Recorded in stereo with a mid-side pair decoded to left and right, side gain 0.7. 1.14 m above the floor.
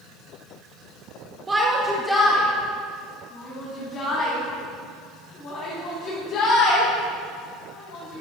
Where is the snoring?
I don't hear snoring.